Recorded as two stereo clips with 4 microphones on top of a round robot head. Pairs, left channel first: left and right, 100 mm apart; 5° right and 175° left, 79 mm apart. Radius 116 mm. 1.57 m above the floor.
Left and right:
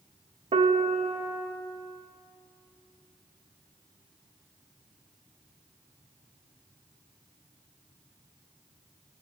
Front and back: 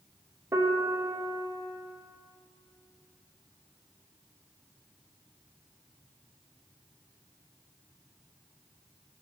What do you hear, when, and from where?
0.5 s a piano: 125° right, 0.6 m